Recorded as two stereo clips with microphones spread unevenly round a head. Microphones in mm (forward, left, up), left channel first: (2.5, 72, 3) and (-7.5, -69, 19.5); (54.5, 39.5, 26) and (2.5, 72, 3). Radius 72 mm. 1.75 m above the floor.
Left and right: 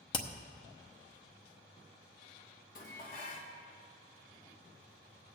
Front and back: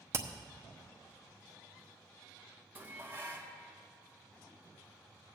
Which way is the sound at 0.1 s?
110° left.